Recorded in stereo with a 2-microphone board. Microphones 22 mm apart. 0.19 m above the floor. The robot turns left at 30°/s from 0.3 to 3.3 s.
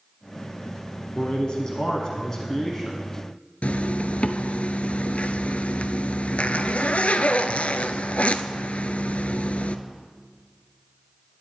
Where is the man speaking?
85° left, 1.3 m; by 3.0 s 30° left, 1.3 m.